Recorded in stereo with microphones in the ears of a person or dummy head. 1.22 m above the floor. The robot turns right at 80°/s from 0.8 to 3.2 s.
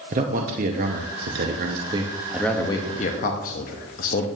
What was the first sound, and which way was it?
A man speaking, 125° right.